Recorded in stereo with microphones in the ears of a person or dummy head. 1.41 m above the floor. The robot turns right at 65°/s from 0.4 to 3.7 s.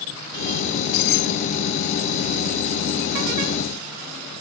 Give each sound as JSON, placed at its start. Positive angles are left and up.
{"t": 0.7, "sound": "keys jangling", "azimuth_deg": 45}